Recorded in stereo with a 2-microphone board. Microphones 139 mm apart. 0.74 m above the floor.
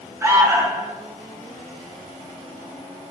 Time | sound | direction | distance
0.2 | an alarm | 15° right (ahead or behind) | 0.8 m